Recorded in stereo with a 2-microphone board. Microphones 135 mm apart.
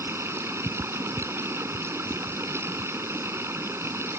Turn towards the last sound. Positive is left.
turn(degrees=-20)  # may be behind; listen again after turning